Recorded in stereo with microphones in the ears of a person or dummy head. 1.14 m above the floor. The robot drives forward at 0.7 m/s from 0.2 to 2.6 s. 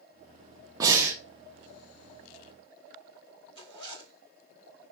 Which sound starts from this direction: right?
Breathing, at 0.8 s.